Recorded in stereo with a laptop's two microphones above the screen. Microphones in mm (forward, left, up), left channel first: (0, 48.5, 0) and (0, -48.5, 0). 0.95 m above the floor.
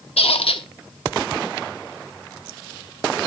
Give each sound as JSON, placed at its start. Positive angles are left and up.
{"t": 0.2, "sound": "a squeak", "side_deg": 85, "distance_m": 1.2}